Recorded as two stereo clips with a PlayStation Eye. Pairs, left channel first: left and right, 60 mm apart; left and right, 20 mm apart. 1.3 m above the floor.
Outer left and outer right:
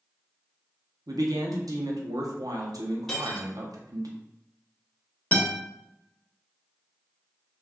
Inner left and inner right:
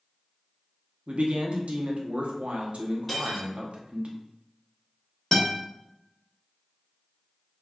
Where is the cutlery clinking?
5° left (ahead or behind), 1.6 m.